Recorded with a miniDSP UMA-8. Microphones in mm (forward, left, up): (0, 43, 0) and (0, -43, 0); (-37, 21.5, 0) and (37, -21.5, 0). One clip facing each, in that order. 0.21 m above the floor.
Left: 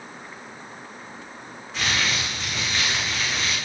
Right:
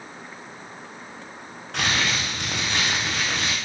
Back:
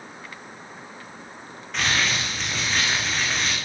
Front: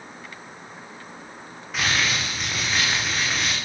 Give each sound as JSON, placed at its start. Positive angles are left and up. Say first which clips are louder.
{"t": 1.7, "sound": "crumpling", "louder": "right 1 dB, even", "azimuth_deg": -115, "distance_m": 9.5}